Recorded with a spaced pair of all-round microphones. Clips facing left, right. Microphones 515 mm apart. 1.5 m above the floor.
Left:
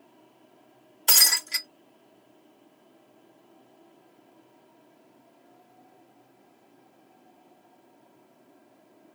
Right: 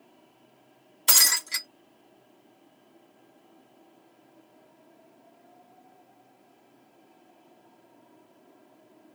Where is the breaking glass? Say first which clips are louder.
Even; 30° right (ahead or behind), 1.9 m.